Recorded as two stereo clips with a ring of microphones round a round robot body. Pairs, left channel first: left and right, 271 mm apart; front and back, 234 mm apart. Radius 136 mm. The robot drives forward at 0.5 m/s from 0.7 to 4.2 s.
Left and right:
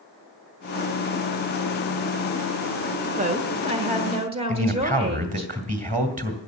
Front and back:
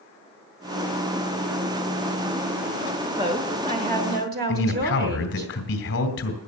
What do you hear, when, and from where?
3.2 s a woman speaking: 125° right, 1.0 m; by 5.5 s 150° right, 1.3 m
4.5 s a man speaking: 35° right, 2 m